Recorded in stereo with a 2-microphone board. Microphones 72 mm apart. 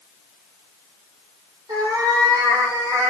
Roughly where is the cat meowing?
Right.